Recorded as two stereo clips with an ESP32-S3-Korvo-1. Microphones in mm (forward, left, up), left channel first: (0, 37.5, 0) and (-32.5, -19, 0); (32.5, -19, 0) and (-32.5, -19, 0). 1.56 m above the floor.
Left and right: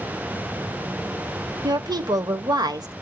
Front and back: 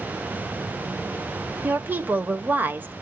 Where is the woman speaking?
120° right, 1.2 m.